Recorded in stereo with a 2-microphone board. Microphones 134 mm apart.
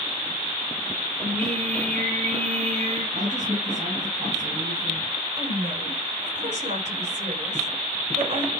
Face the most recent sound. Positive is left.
turn(degrees=-60)  # may be behind; listen again after turning